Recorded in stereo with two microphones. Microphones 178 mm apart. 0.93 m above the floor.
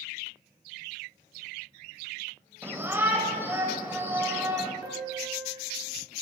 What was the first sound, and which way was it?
A shout, 10° right (ahead or behind).